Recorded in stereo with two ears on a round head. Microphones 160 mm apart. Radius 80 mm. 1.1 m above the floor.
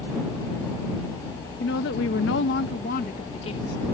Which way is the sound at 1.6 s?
60° left (ahead or behind).